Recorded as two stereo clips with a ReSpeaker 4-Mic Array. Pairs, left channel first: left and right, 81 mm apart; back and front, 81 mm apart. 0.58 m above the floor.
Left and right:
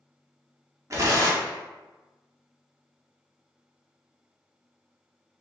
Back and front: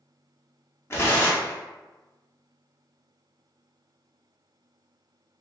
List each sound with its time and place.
0.9 s tearing paper: 130° right, 0.6 m